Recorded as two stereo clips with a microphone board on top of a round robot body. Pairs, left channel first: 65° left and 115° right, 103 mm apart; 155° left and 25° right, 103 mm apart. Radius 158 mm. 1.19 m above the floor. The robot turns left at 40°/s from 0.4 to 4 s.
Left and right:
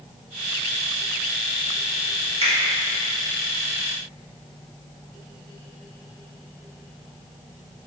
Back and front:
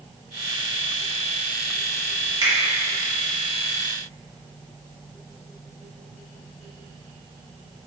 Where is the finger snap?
75° right, 1.9 m; by 2.5 s 80° right, 1.9 m.